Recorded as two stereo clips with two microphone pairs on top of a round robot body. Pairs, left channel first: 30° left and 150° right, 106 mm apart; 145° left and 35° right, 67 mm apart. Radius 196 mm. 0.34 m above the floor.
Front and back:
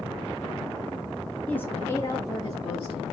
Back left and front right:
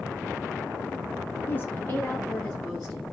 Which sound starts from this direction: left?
A woman speaking, at 1.5 s.